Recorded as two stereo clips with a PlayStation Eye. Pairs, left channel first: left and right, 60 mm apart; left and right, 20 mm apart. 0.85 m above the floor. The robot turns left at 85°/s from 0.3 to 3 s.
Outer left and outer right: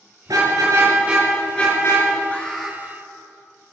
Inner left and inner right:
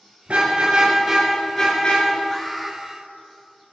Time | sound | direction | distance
0.3 | a car horn | 85° right | 6.5 m
2.3 | an alarm | 30° left | 2 m